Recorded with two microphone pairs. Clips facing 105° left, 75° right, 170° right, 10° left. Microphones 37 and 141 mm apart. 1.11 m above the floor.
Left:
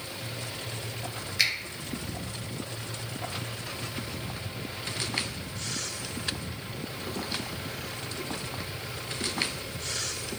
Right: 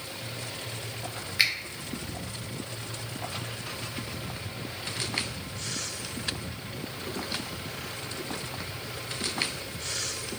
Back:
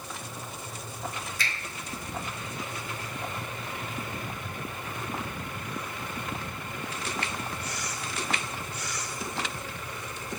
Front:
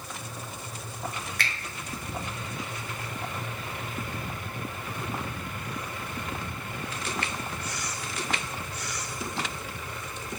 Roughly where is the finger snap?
Ahead.